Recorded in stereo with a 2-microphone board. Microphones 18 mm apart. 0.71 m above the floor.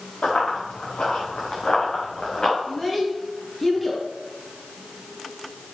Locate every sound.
0.2 s running footsteps: 80° left, 5 m; by 2.6 s 40° left (ahead or behind), 4.5 m
2.7 s a child speaking: 10° left (ahead or behind), 4.5 m